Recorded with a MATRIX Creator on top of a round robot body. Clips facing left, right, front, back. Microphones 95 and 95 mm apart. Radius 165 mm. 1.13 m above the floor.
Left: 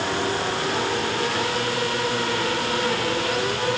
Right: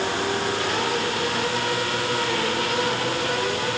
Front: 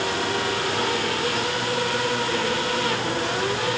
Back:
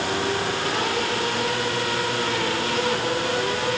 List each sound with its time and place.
Only background noise.